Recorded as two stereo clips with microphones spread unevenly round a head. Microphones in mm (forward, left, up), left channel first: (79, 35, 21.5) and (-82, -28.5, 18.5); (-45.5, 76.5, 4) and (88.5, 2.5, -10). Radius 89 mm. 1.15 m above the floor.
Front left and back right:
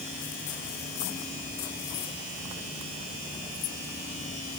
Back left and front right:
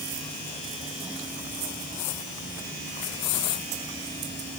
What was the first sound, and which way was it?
Only background noise.